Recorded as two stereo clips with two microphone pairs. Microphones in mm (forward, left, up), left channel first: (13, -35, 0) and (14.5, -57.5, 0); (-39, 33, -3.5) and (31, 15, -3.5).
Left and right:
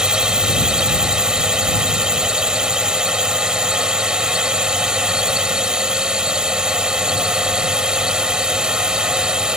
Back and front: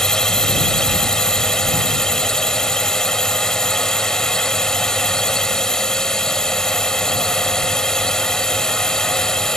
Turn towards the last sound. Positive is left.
turn(degrees=-120)